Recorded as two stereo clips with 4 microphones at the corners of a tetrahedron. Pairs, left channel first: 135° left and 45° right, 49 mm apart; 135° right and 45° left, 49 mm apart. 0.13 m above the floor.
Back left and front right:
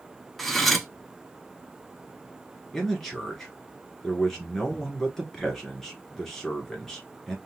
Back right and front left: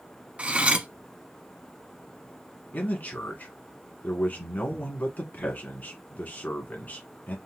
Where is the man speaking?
145° right, 1.5 m.